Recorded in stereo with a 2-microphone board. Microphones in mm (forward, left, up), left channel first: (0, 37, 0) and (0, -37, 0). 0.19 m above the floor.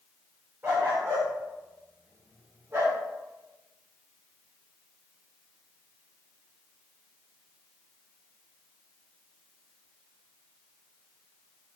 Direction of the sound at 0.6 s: 30° right (ahead or behind).